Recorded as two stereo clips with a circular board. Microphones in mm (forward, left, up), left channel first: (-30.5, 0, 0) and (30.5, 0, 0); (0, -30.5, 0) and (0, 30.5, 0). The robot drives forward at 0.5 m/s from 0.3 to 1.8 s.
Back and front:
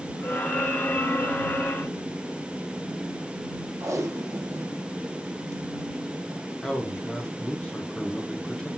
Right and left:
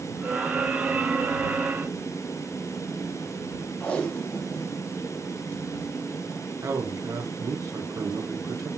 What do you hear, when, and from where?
3.8 s tape being pulled: 20° right, 0.9 m
6.6 s a man speaking: 105° left, 1.3 m